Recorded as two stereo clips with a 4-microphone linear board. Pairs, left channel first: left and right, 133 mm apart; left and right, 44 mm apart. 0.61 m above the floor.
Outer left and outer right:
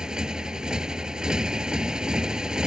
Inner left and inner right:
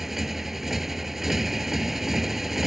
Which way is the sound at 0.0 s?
5° right (ahead or behind).